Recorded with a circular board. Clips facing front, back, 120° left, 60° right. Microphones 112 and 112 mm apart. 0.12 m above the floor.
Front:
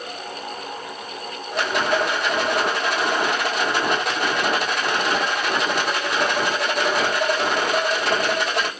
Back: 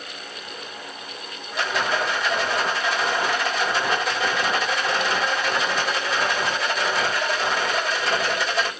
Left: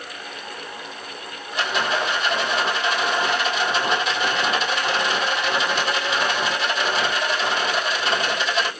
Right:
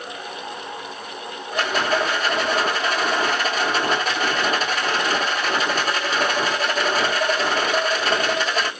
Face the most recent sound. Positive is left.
turn(degrees=-20)